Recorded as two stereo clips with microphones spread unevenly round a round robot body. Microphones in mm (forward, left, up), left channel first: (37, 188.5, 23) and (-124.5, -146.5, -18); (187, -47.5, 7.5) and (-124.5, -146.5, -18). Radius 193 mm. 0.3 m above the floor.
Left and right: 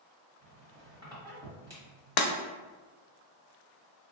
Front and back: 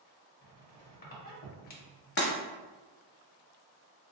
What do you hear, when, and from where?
0.4 s a squeak: 45° right, 1.0 m
2.2 s breaking glass: 80° left, 0.5 m